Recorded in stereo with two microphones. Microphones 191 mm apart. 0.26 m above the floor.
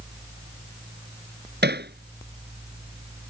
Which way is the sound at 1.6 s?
60° right (ahead or behind).